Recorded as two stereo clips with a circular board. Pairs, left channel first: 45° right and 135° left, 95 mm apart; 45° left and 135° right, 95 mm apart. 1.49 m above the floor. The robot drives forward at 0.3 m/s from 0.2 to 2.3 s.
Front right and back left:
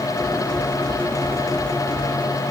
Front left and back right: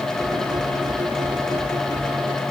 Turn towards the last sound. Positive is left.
No sound to turn to.